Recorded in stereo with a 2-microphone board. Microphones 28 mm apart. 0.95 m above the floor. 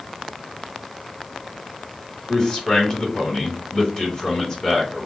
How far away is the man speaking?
About 2.5 m.